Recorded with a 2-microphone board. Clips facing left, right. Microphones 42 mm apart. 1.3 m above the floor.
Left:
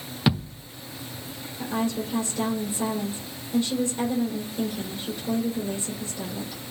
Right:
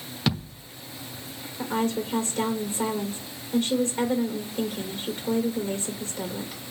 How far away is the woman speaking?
About 4 m.